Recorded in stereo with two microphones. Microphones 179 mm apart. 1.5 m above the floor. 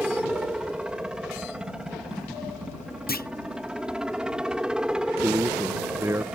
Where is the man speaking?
15° right (ahead or behind).